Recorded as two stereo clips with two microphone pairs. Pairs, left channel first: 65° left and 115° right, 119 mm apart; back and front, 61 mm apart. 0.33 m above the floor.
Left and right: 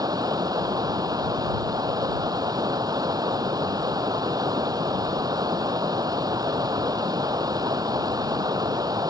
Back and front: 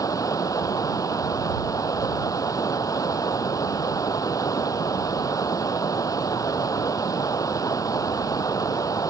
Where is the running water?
175° right.